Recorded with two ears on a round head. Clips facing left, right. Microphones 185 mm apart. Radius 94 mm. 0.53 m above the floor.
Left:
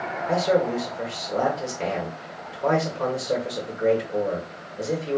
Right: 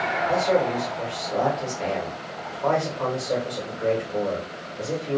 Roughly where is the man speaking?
Left.